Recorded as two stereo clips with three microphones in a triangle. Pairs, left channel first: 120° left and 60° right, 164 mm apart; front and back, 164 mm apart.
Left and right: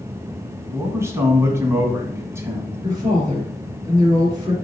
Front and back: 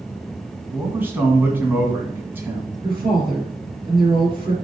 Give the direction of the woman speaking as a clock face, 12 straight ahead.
4 o'clock.